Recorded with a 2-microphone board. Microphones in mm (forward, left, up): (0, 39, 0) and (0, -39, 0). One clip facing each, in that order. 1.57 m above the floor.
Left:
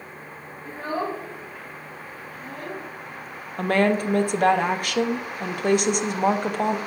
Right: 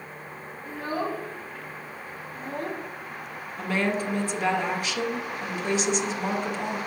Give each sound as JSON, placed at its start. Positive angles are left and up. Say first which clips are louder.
{"t": 0.7, "sound": "a child speaking", "louder": "left 2 dB", "side_deg": 35, "distance_m": 1.3}
{"t": 3.6, "sound": "a woman speaking", "louder": "left 6 dB", "side_deg": 55, "distance_m": 0.6}